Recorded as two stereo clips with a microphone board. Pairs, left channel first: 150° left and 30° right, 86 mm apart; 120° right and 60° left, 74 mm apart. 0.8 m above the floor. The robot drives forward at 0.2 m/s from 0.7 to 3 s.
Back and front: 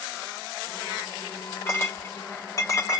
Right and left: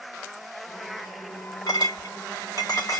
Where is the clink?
150° right, 1.1 m; by 3.0 s 155° right, 1.4 m.